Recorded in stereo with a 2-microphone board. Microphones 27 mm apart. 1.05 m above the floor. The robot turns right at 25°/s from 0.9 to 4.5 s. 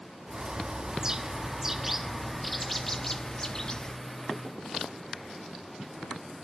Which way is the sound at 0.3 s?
40° right.